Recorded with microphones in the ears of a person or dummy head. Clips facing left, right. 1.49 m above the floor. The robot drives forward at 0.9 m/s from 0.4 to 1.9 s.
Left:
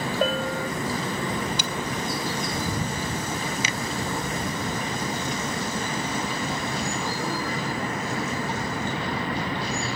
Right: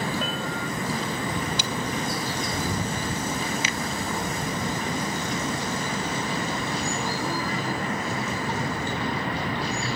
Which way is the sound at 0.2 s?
40° left (ahead or behind).